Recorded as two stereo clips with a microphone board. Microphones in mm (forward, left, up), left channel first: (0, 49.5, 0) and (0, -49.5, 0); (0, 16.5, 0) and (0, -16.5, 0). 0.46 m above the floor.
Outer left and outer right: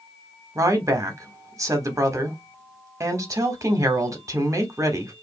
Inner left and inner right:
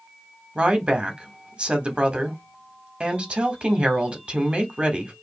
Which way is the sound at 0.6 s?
30° right (ahead or behind).